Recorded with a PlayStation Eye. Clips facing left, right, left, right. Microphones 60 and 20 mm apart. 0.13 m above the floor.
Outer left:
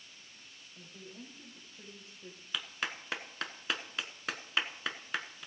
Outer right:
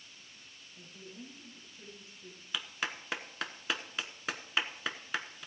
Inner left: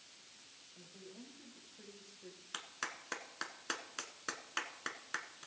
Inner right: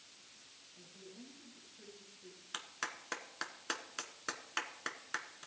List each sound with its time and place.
0.8 s a woman speaking: 70° left (ahead or behind), 5.5 m; by 2.4 s 75° left (ahead or behind), 5 m
2.5 s a clap: 5° right (ahead or behind), 0.9 m